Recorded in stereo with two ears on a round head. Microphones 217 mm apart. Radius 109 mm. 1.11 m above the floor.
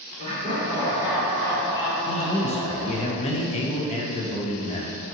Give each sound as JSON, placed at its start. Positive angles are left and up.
{"t": 0.2, "sound": "laughter", "side_deg": -40, "distance_m": 1.7}
{"t": 2.1, "sound": "a man speaking", "side_deg": 25, "distance_m": 0.6}